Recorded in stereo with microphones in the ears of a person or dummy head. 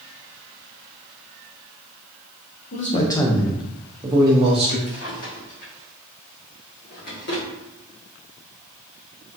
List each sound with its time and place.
2.7 s a man speaking: 45° left (ahead or behind), 0.6 m; by 4.8 s 30° right (ahead or behind), 1.3 m
4.9 s a drawer: 55° left (ahead or behind), 1.5 m